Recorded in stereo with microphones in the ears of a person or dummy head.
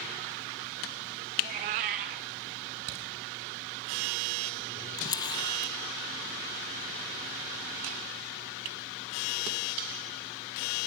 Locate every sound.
1.4 s a cat meowing: 30° right (ahead or behind), 0.9 m
2.9 s a crack: 60° right (ahead or behind), 3.5 m
5.0 s a camera shutter: 20° left (ahead or behind), 0.6 m